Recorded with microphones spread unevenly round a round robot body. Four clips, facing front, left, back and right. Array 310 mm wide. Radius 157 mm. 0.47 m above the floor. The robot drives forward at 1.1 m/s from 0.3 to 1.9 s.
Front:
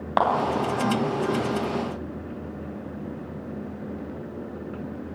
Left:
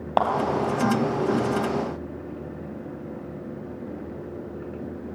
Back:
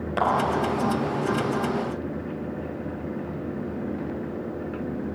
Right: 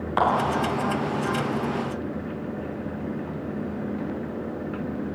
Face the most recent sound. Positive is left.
turn(degrees=105)